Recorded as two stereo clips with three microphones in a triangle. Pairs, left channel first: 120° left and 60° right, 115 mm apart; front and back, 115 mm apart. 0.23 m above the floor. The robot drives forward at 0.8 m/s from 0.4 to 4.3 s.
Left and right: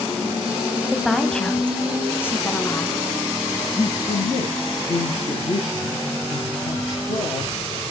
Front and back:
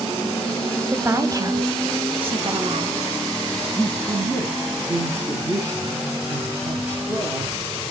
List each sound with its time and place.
0.9 s a woman speaking: 145° right, 1.1 m; by 3.0 s 175° right, 2 m
3.8 s a man speaking: 110° left, 2.5 m; by 7.5 s 120° left, 3 m